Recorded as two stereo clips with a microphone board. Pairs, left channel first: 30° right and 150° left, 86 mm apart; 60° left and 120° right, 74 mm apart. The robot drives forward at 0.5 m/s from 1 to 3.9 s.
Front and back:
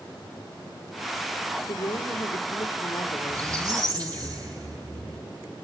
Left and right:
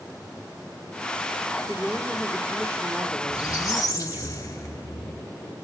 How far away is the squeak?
About 3 m.